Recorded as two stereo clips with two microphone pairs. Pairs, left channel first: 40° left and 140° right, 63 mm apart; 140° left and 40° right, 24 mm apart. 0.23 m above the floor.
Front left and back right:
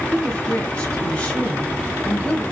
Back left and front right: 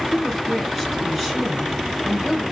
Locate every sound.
0.1 s a woman speaking: 25° left, 1.4 m